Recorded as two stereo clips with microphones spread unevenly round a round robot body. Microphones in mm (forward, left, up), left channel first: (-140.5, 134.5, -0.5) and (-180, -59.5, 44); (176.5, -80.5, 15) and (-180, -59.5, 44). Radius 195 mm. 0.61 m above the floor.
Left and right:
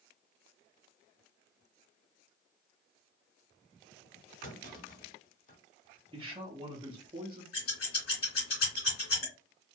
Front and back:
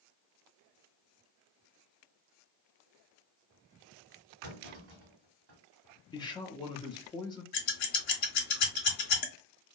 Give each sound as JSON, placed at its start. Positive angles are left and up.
{"t": 4.4, "sound": "a clunk", "azimuth_deg": 130, "distance_m": 1.6}
{"t": 6.1, "sound": "a man speaking", "azimuth_deg": -40, "distance_m": 0.5}
{"t": 7.5, "sound": "scissors", "azimuth_deg": 40, "distance_m": 1.1}